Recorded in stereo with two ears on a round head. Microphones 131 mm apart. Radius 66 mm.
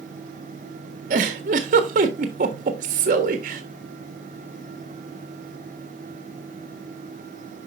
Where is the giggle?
60° right (ahead or behind), 1.4 m.